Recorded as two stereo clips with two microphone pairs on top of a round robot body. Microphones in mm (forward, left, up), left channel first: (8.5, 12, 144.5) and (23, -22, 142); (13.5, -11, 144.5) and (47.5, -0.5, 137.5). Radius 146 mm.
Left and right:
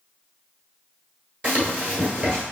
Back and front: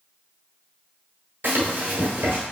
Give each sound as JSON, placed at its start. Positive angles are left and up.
{"t": 1.4, "sound": "running footsteps", "azimuth_deg": -20, "distance_m": 1.1}